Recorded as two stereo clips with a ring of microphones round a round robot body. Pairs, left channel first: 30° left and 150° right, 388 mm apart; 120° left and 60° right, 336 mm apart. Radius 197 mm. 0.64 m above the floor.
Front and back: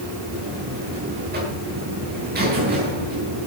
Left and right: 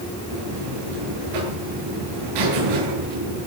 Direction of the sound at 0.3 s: 85° right.